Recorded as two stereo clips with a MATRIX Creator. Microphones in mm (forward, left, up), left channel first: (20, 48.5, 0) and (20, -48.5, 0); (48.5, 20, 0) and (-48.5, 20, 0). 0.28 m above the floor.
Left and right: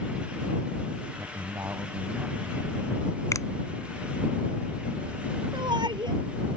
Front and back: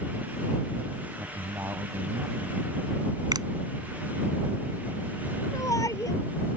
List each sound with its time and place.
1.2 s a man speaking: 120° right; by 2.9 s 175° right
3.3 s a finger snap: 140° left
5.5 s a shout: 55° right